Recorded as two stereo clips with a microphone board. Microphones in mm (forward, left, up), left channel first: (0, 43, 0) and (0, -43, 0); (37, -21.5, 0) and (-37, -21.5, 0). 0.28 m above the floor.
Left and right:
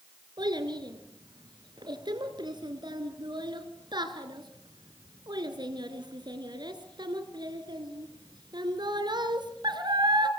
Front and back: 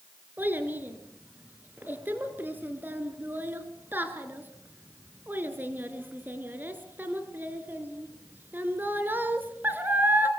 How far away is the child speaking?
About 3.5 m.